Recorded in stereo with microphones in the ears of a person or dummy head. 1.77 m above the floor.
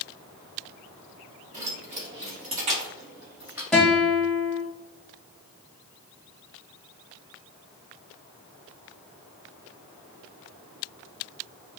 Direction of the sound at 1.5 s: 40° right (ahead or behind).